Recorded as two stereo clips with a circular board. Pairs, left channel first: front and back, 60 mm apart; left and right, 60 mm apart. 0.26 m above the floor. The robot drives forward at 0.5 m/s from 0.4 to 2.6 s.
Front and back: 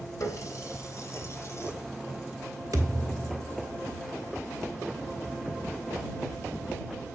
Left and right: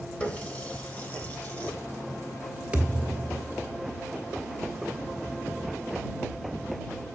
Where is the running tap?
25° left, 2.5 m; by 1.7 s 40° left, 1.8 m.